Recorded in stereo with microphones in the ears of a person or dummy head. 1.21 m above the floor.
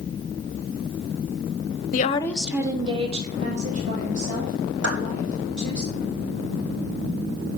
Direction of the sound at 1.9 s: 40° left (ahead or behind).